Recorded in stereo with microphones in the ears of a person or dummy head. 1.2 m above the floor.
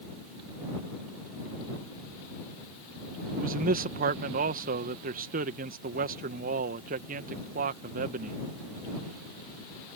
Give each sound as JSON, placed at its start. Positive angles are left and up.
{"t": 3.4, "sound": "a man speaking", "side_deg": -45}